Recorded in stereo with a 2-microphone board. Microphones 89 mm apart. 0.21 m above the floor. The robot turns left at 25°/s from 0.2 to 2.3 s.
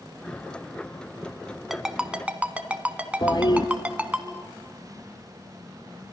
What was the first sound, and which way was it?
A ringtone, 5° right (ahead or behind).